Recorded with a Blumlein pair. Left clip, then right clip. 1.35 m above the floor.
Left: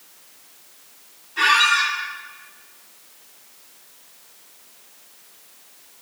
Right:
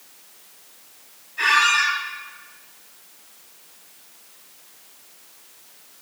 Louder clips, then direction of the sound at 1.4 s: Left 1 dB; 45° left.